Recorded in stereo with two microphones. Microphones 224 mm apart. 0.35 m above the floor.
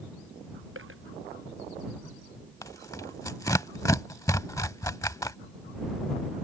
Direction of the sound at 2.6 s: 15° left (ahead or behind).